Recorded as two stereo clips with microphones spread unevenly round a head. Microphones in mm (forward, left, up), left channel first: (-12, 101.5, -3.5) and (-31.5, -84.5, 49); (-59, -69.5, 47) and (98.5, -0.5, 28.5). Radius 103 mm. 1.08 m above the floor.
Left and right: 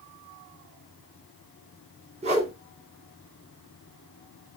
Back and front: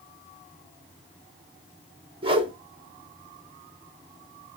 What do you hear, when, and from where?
2.2 s a whoosh: 35° right, 1.9 m